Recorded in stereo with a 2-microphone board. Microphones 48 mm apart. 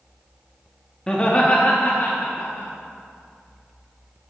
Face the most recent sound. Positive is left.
turn(degrees=55)  # may be behind; listen again after turning